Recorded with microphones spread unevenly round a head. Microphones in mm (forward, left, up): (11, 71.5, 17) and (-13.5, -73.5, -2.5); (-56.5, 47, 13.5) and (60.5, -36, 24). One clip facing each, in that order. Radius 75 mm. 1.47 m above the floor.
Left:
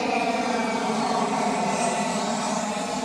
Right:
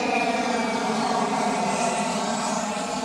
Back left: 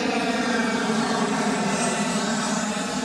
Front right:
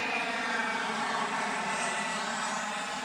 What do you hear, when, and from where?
0.0 s an aircraft: 175° left; by 3.1 s 165° left